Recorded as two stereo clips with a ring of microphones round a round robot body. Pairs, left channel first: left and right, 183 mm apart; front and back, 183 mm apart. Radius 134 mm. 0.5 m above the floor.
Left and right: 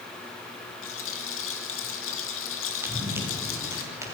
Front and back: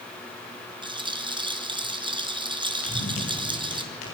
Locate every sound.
0.8 s a rattle: 115° left, 3 m
2.8 s running footsteps: 10° right, 9 m; by 4.2 s 15° right, 8.5 m